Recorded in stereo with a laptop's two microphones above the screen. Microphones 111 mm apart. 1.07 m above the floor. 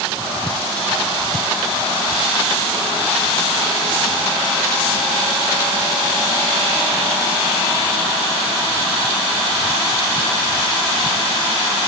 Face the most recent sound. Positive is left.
No sound to turn to.